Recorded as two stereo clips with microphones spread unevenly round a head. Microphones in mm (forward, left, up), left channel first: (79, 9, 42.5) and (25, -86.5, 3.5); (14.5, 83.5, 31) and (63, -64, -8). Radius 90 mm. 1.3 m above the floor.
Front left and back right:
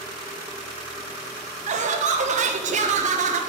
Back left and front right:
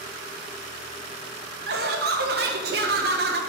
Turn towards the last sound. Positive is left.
turn(degrees=-110)